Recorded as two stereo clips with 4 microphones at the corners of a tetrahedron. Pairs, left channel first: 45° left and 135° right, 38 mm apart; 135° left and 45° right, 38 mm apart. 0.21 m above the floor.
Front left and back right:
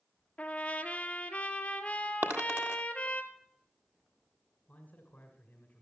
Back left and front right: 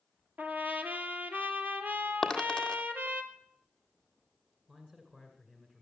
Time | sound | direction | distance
0.4 | a trumpet | 5° right | 1.6 m
2.2 | a dropped coin | 145° right | 1.5 m
4.7 | a man speaking | 20° left | 2 m